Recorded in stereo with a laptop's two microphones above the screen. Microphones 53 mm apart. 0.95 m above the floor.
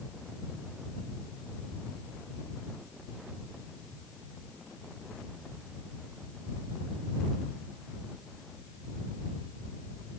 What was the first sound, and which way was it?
Only background noise.